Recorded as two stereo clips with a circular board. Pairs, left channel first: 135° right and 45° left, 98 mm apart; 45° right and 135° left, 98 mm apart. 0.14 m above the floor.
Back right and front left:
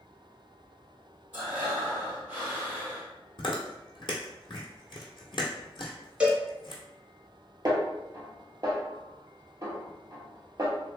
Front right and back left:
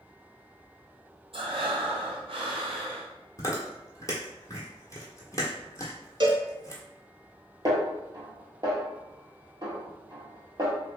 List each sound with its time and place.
1.3 s breathing: 115° left, 1.2 m
3.4 s chewing: 100° right, 1.0 m
6.2 s a cowbell: 120° left, 0.7 m
7.7 s a snare drum: 95° left, 1.1 m